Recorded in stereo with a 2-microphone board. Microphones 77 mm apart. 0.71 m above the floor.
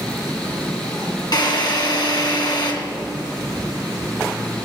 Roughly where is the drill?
Left.